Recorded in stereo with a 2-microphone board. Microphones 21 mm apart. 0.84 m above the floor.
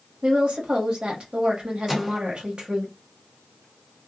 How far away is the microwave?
About 0.6 m.